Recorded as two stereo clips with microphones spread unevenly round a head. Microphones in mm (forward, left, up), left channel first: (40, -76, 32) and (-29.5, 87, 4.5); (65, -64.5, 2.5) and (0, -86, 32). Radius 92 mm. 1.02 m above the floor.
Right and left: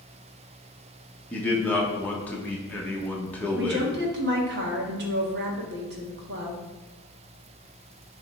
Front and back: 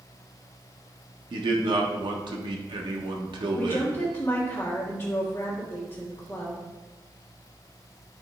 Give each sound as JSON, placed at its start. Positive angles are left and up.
{"t": 1.3, "sound": "a man speaking", "azimuth_deg": -150, "distance_m": 1.4}
{"t": 3.5, "sound": "a woman speaking", "azimuth_deg": 85, "distance_m": 1.5}